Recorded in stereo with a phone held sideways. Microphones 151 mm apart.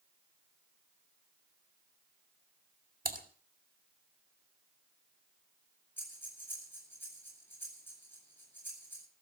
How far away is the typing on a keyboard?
About 2.5 m.